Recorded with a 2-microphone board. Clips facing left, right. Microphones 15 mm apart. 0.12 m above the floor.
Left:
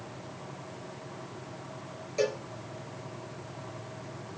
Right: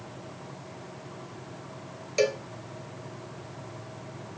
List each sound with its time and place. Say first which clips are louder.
2.2 s a cowbell: right 4 dB; 50° right (ahead or behind), 0.6 m